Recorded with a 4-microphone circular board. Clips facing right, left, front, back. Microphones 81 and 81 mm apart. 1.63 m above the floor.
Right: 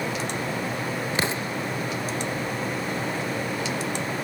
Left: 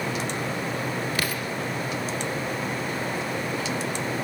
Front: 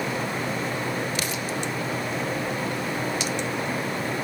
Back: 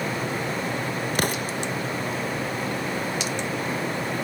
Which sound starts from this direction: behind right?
An explosion, at 1.1 s.